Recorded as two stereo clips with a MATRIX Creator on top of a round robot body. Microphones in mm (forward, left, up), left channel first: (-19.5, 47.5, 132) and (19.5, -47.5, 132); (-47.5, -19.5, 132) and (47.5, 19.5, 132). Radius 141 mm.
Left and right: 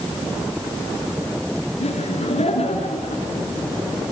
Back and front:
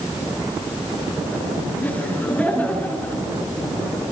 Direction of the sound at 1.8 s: 130° left.